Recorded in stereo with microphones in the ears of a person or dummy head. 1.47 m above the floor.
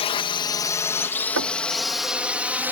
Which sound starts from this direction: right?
Knocking, at 1.4 s.